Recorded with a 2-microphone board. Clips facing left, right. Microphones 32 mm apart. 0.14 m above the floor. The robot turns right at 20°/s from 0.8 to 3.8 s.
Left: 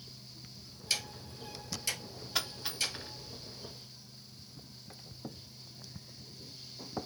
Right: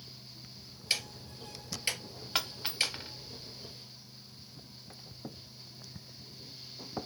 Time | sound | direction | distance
0.9 | ticking | 25° right (ahead or behind) | 1.1 m
2.4 | a dropped coin | 55° right (ahead or behind) | 2 m